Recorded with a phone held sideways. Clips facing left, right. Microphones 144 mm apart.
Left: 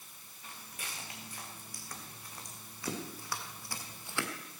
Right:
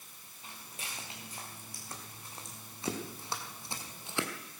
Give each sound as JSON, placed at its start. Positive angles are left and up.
{"t": 0.4, "sound": "footsteps", "side_deg": -25, "distance_m": 6.0}